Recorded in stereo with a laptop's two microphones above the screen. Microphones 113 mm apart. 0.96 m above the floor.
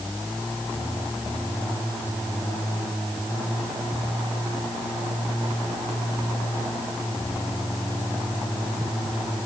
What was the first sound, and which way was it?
Only background noise.